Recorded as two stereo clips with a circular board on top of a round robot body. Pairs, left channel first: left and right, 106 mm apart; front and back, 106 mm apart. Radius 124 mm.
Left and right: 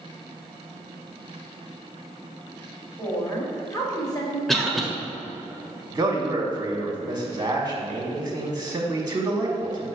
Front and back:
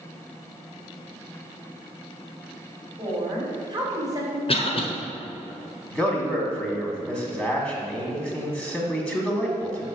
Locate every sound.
3.0 s a woman speaking: 155° left, 2.5 m; by 4.4 s 125° left, 2 m
4.5 s a cough: straight ahead, 1.5 m
5.9 s a man speaking: 85° right, 1.5 m